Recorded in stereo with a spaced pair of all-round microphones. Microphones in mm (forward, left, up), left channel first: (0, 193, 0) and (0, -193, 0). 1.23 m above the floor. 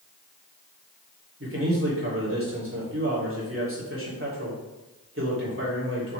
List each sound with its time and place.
1.4 s a man speaking: 35° right (ahead or behind), 3 m